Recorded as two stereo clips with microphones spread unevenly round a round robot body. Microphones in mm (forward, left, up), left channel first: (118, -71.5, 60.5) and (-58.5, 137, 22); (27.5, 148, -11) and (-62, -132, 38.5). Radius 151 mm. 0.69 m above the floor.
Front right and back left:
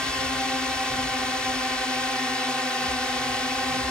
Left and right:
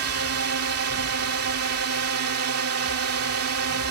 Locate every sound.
0.0 s a drone: 140° right